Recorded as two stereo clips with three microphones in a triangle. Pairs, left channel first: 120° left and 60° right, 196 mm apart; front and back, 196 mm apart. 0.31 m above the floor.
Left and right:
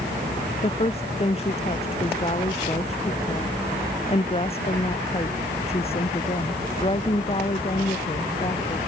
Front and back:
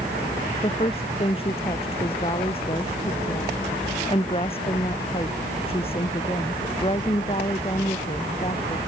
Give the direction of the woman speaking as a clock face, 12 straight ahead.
10 o'clock.